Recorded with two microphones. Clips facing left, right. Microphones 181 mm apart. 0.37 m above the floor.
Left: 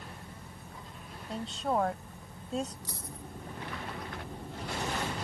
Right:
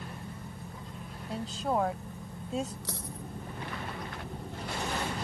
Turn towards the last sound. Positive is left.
turn(degrees=-75)  # may be behind; listen again after turning